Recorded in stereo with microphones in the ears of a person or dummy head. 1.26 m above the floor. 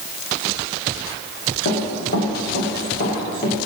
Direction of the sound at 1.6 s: 65° left (ahead or behind).